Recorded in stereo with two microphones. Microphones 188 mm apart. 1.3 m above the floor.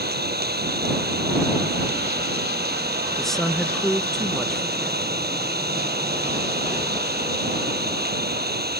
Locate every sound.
0.0 s an engine running: 60° right (ahead or behind)
3.2 s a woman speaking: centre (ahead or behind)